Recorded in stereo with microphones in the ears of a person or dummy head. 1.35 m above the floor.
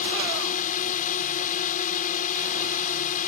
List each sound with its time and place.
0.0 s a drone: 45° left (ahead or behind)